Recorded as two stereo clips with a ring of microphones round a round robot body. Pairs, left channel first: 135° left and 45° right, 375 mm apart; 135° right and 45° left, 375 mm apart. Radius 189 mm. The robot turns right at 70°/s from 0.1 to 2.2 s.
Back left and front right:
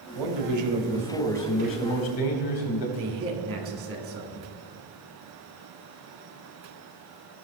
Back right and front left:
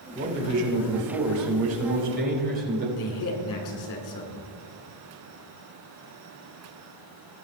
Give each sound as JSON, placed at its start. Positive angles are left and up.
{"t": 0.1, "sound": "a man speaking", "azimuth_deg": -30, "distance_m": 3.0}
{"t": 3.0, "sound": "a man speaking", "azimuth_deg": -95, "distance_m": 3.0}